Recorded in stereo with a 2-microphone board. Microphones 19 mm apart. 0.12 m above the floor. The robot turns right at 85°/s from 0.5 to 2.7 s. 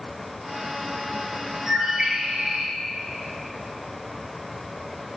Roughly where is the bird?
Behind right.